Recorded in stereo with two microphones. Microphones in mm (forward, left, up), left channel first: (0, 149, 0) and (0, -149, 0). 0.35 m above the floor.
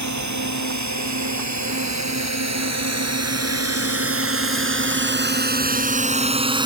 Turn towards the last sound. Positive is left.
turn(degrees=-15)  # may be behind; listen again after turning